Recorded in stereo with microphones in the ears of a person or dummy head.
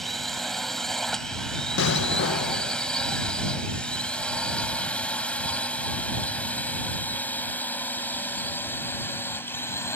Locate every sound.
0.0 s a drone: 5° left (ahead or behind); by 10.0 s 15° left (ahead or behind)
1.8 s an explosion: 80° left